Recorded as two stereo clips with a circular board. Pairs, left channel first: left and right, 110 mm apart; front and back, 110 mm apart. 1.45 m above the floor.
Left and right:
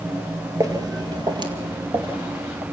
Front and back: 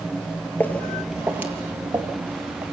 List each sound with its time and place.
0.6 s footsteps: 60° right, 1.7 m; by 2.6 s 135° right, 3 m